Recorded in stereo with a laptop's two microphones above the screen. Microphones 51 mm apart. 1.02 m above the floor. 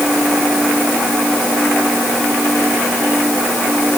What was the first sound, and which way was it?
Only background noise.